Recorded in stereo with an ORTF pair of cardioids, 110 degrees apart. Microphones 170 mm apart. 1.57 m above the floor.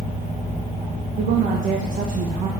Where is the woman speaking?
60° right, 1.3 m.